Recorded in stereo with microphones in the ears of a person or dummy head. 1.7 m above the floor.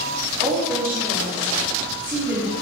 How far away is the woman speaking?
About 0.7 m.